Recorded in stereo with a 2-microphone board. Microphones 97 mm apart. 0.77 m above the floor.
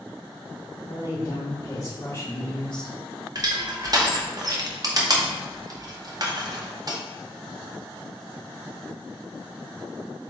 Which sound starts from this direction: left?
A woman speaking, at 0.9 s.